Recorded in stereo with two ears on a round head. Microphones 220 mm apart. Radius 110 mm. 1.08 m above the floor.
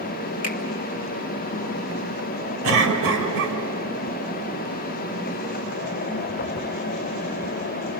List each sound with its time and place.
0.4 s a finger snap: 35° left (ahead or behind), 2.0 m
2.6 s a cough: 55° right (ahead or behind), 5 m